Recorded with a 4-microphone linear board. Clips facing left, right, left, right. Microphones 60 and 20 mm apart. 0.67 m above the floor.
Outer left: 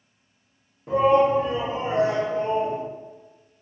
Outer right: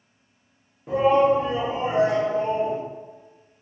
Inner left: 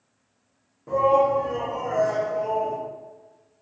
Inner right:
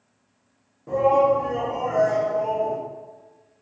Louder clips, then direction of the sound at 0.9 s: Even, inner right 1 dB; centre (ahead or behind).